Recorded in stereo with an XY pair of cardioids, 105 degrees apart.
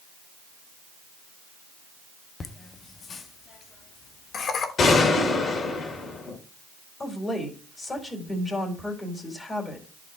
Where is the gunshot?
50° left, 2.5 m.